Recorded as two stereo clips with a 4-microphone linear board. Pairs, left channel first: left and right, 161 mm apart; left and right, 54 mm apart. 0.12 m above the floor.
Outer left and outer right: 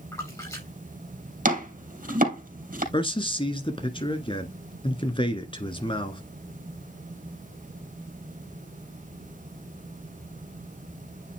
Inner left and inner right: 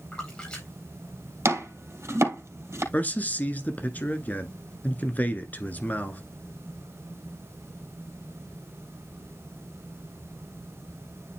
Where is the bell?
No bell in this recording.